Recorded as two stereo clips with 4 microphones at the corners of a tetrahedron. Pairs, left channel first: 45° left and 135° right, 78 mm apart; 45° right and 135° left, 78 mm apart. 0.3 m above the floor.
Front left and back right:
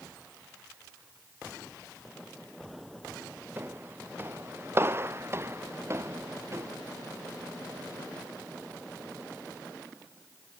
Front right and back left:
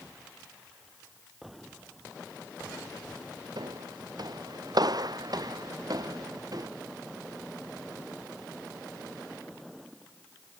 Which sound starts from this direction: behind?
Footsteps, at 3.6 s.